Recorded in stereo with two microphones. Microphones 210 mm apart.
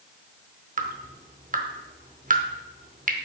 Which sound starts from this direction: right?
Dripping, at 0.8 s.